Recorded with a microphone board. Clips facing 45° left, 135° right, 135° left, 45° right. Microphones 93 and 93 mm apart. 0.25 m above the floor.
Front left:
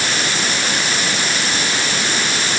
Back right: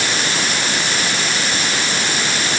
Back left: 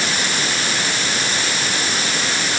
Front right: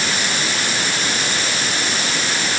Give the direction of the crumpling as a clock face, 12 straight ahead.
I don't hear crumpling.